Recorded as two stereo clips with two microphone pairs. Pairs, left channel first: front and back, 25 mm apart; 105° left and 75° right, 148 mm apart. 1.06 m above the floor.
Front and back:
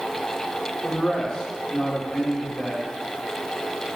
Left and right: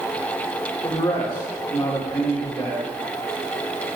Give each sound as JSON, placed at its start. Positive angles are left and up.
{"t": 0.8, "sound": "a man speaking", "azimuth_deg": 50, "distance_m": 1.6}